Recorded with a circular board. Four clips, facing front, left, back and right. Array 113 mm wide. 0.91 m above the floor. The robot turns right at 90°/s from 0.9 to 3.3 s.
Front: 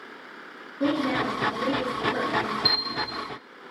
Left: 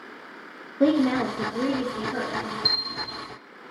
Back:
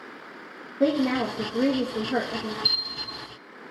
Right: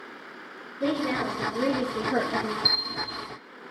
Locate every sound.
0.8 s a woman speaking: 115° left, 1.2 m; by 2.5 s 95° right, 1.2 m
2.6 s a bell: 70° right, 2.5 m; by 3.2 s 20° right, 2.5 m